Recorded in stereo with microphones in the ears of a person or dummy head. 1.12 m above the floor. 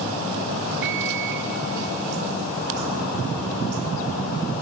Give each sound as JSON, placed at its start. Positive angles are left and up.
{"t": 0.8, "sound": "a microwave", "side_deg": -65, "distance_m": 1.6}